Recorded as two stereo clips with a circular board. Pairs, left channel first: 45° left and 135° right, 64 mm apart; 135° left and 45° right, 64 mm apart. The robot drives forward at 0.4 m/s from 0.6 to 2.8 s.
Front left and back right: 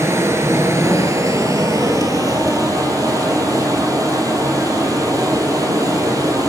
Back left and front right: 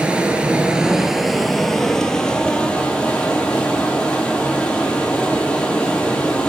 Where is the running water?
110° right, 0.7 m; by 6.5 s 155° right, 1.3 m.